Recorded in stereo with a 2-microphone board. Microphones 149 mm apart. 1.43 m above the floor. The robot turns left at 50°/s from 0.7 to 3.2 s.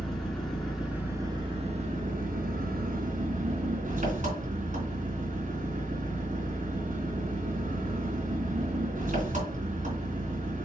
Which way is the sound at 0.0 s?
5° left.